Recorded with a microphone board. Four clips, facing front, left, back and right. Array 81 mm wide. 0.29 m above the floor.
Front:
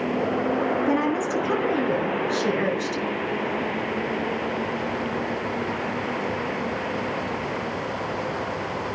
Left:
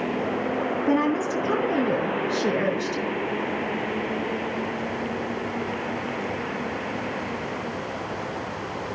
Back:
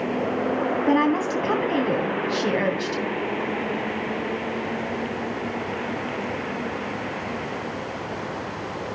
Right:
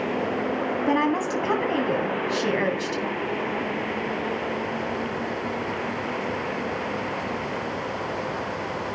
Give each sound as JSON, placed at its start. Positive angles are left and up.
{"t": 0.9, "sound": "a woman speaking", "azimuth_deg": -125, "distance_m": 2.0}